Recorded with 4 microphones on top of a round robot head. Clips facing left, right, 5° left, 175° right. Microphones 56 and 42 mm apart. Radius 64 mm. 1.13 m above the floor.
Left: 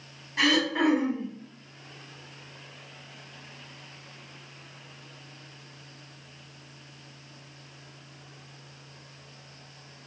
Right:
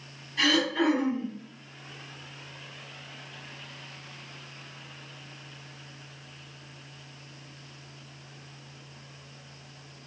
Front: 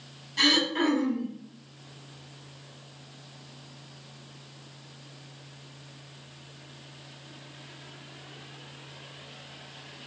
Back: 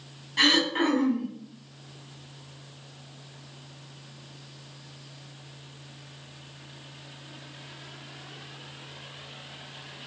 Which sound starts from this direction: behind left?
Throat clearing, at 0.4 s.